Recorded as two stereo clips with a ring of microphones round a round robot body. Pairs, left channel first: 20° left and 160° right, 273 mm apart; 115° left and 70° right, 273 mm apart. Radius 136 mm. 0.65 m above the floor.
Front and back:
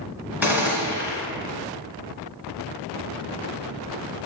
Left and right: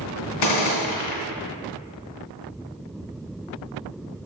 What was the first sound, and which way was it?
A gunshot, 120° left.